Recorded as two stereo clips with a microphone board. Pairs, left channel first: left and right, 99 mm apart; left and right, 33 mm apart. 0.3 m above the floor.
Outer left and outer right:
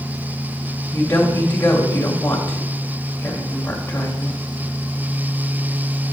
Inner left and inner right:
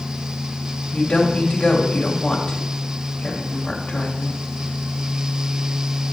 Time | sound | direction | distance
0.9 | a woman speaking | 20° left (ahead or behind) | 1.5 m